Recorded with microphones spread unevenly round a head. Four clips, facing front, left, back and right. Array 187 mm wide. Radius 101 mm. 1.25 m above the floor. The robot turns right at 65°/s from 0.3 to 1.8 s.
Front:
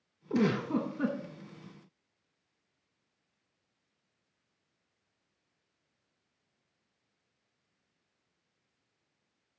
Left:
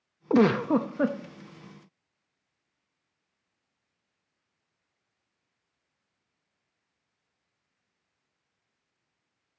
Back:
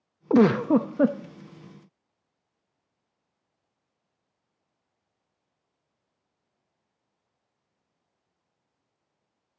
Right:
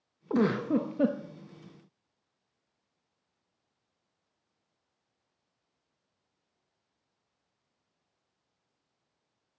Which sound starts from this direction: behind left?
A giggle, at 0.3 s.